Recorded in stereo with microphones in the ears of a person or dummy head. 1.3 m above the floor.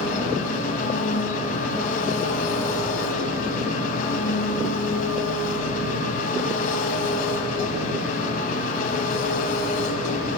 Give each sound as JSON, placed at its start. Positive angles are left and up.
{"t": 0.0, "sound": "an engine running", "side_deg": 45, "distance_m": 4.0}